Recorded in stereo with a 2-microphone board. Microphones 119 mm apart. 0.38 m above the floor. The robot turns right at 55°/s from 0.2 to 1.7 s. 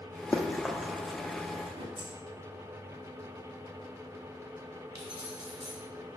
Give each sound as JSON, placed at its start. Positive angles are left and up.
{"t": 0.3, "sound": "running footsteps", "side_deg": 10, "distance_m": 0.9}
{"t": 2.0, "sound": "keys jangling", "side_deg": -70, "distance_m": 2.5}
{"t": 5.0, "sound": "keys jangling", "side_deg": -40, "distance_m": 2.0}